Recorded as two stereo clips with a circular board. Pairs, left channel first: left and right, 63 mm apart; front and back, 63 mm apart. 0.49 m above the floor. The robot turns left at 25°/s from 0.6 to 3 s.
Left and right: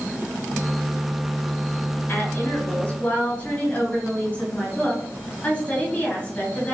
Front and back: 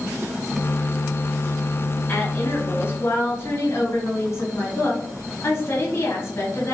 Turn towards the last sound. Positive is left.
turn(degrees=25)